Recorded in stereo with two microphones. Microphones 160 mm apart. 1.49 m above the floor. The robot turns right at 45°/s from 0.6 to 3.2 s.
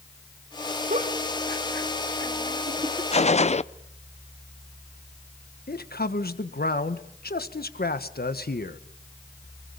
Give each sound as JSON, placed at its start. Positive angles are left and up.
{"t": 0.9, "sound": "a giggle", "side_deg": -50, "distance_m": 1.9}
{"t": 3.1, "sound": "a gunshot", "side_deg": 40, "distance_m": 0.5}
{"t": 5.7, "sound": "a man speaking", "side_deg": 75, "distance_m": 1.4}